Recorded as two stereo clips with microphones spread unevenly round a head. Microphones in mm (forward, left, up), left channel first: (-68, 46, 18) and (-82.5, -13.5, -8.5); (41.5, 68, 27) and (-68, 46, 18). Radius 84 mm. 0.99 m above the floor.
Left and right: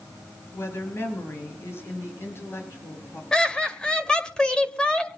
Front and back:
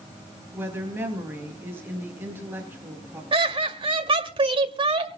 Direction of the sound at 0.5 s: 120° left.